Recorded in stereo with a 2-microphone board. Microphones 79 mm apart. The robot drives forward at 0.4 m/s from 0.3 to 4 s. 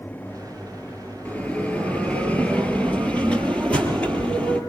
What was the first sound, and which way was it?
A bell, 15° left (ahead or behind).